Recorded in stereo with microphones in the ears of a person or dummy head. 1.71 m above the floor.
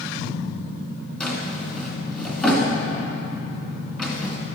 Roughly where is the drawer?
Centre.